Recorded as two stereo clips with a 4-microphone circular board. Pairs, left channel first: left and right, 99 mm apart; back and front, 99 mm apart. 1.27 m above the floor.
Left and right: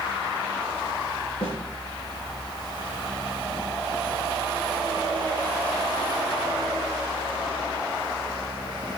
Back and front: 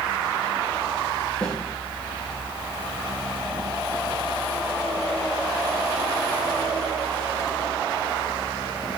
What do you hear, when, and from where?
1.4 s a snare drum: 105° left, 8 m